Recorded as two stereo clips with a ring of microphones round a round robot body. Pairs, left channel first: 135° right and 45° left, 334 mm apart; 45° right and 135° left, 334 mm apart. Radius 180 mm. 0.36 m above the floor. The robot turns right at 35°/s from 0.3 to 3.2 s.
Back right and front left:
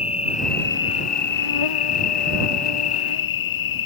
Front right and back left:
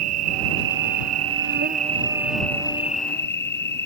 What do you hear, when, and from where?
0.0 s an insect: 150° left; by 3.9 s 105° right